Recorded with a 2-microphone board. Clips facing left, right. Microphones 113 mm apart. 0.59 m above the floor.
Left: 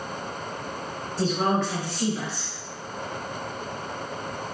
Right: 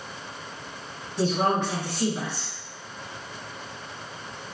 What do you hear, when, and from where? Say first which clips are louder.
1.2 s a woman speaking: right 1 dB; 20° right (ahead or behind), 0.9 m